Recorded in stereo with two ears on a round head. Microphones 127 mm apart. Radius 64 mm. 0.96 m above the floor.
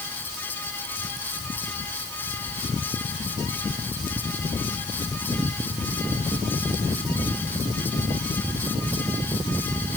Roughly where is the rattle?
I don't hear a rattle.